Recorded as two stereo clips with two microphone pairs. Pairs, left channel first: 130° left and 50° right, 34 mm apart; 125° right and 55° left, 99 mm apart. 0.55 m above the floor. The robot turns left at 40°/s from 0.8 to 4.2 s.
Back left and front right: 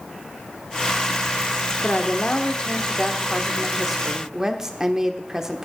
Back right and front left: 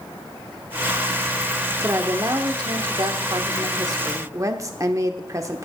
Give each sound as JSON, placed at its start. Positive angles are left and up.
{"t": 1.8, "sound": "a woman speaking", "azimuth_deg": 110, "distance_m": 1.4}